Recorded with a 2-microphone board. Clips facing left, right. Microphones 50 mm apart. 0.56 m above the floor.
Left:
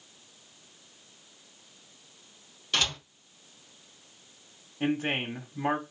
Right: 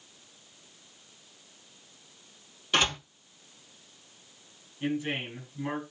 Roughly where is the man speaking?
Left.